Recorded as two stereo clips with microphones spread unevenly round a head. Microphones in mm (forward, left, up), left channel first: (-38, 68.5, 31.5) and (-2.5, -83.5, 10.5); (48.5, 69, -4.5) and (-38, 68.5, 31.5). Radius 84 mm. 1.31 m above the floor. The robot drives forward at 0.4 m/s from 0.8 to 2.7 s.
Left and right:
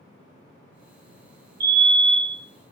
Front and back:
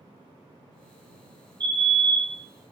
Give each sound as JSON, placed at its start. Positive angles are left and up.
{"t": 1.6, "sound": "a fire alarm", "azimuth_deg": -110, "distance_m": 1.5}